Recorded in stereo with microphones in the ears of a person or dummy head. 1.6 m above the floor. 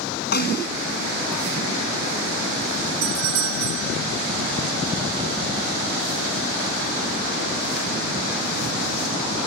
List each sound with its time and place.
0.3 s a snare drum: 45° left (ahead or behind)
3.0 s a doorbell: 85° right